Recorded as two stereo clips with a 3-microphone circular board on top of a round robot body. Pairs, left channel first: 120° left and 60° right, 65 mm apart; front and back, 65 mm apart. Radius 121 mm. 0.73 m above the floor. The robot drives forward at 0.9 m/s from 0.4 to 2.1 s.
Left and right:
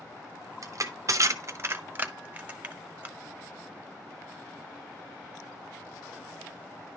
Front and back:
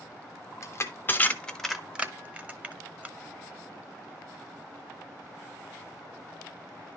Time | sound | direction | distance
0.6 | crushing | 35° right | 1.4 m